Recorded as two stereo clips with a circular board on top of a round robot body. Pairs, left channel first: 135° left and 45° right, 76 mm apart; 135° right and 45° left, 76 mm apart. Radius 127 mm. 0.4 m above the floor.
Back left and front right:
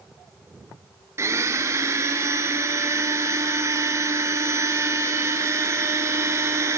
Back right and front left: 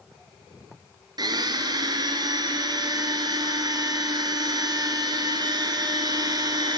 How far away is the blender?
About 1.3 m.